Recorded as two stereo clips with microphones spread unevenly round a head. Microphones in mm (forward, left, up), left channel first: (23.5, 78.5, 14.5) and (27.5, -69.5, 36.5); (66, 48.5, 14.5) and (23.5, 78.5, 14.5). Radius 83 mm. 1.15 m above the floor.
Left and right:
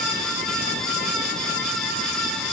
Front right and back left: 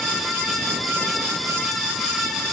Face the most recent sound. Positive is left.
No sound to turn to.